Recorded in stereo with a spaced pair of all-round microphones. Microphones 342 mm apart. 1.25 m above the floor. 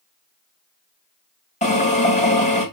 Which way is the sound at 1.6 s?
20° left (ahead or behind).